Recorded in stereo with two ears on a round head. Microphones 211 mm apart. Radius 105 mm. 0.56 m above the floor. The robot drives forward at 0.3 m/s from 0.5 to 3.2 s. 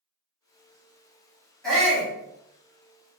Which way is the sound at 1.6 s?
5° left (ahead or behind).